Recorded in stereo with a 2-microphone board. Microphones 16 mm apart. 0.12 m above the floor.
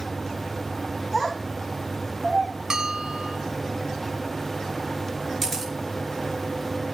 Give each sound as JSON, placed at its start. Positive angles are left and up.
{"t": 1.1, "sound": "a child speaking", "side_deg": -5, "distance_m": 4.5}
{"t": 2.7, "sound": "a bell", "side_deg": -50, "distance_m": 0.8}
{"t": 5.4, "sound": "a camera shutter", "side_deg": 15, "distance_m": 6.5}